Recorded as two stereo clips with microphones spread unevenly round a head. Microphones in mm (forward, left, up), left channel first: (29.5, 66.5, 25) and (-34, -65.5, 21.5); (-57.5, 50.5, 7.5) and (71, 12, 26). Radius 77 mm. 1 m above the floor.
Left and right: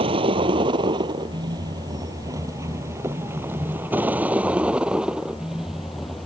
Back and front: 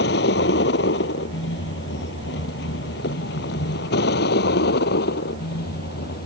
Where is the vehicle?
175° right; by 6.3 s 155° left.